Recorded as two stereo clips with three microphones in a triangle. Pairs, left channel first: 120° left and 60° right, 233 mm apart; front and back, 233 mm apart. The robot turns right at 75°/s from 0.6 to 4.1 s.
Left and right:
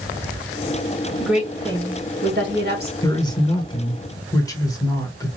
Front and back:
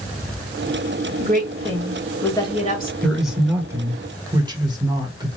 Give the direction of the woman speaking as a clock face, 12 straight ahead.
5 o'clock.